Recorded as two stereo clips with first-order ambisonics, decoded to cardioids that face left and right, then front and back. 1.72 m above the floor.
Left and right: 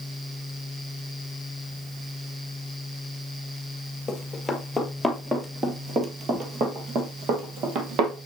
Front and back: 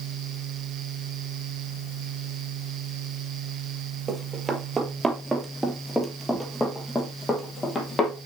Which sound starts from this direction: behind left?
Running footsteps, at 4.1 s.